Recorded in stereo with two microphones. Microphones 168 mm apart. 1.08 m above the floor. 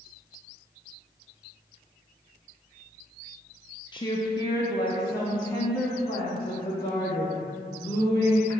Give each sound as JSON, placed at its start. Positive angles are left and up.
{"t": 3.9, "sound": "a woman speaking", "side_deg": 25, "distance_m": 0.5}